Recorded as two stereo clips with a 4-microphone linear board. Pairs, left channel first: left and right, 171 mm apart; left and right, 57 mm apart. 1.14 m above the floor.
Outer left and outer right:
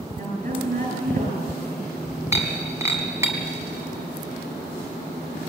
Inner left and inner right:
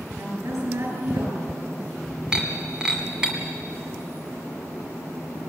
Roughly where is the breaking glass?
Centre.